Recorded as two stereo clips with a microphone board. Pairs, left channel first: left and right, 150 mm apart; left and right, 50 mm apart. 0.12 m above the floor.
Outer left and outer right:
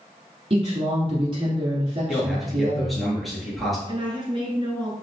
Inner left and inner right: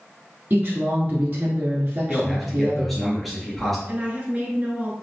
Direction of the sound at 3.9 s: 35° right (ahead or behind).